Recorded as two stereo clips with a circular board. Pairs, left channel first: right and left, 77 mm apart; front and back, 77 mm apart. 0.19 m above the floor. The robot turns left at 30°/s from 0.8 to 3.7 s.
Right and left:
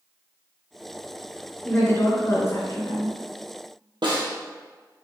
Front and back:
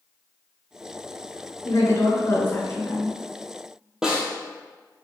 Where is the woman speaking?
30° right, 2 m; by 3.1 s 70° right, 2 m.